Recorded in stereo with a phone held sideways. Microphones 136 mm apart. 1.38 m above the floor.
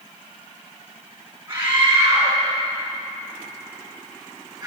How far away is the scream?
About 5.5 m.